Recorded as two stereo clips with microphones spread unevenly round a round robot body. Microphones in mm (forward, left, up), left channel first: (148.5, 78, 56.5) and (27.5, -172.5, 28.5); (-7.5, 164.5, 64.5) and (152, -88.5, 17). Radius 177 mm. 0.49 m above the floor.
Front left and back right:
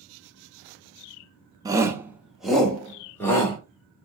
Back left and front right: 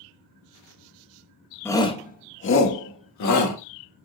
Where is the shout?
140° right, 0.8 m; by 3.6 s 150° left, 1.4 m.